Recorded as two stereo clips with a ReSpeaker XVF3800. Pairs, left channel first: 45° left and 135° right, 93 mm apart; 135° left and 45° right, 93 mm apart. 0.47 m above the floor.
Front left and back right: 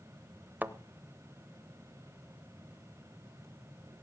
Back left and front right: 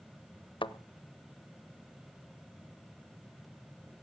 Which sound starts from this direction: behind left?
A thud, at 0.6 s.